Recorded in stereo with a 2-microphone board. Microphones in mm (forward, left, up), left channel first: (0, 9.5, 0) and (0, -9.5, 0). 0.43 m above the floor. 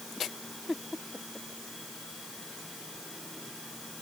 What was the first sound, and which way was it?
Only background noise.